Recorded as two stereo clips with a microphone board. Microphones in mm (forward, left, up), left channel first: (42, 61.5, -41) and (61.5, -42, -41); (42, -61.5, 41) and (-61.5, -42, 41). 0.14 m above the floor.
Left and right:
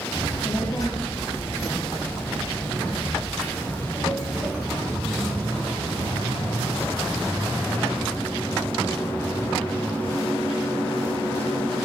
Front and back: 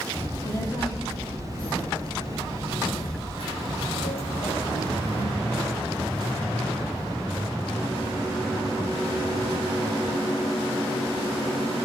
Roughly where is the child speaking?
Ahead left.